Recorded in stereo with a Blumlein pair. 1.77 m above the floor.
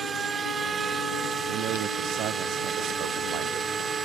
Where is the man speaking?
35° right.